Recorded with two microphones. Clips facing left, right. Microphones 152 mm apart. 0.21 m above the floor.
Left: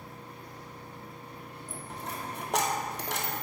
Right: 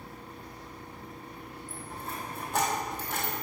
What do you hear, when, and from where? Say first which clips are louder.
1.7 s a dropped coin: left 1 dB; 80° left, 1.4 m